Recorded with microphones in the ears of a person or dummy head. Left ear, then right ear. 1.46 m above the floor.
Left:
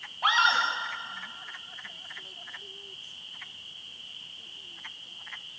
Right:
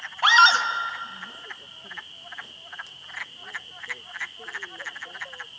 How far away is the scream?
About 2.5 m.